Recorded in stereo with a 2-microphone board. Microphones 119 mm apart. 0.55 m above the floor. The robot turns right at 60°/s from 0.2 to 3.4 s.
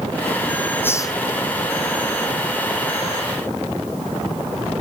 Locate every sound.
0.8 s a hiss: 15° left (ahead or behind); by 1.2 s 35° left (ahead or behind)